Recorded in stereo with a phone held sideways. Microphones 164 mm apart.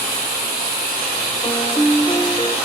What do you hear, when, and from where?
1.4 s a piano: 35° left (ahead or behind), 0.6 m